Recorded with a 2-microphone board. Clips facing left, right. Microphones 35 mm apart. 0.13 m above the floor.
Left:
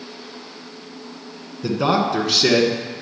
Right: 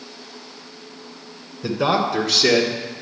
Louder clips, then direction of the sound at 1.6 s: Left 1 dB; 5° right (ahead or behind).